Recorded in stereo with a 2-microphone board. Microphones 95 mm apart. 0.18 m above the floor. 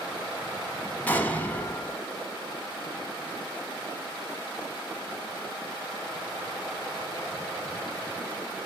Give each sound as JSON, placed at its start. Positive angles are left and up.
{"t": 1.1, "sound": "an explosion", "side_deg": 20, "distance_m": 0.8}